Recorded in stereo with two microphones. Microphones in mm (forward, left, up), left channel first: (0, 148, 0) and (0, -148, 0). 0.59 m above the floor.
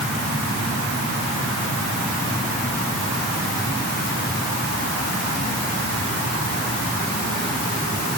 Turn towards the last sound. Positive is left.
No sound to turn to.